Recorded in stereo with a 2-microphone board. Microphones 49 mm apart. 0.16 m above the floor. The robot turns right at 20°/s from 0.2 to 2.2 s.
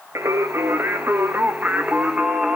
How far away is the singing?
About 2 m.